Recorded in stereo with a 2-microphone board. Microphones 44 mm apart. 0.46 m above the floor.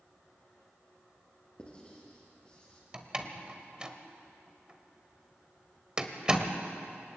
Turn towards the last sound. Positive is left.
turn(degrees=-20)  # may be behind; listen again after turning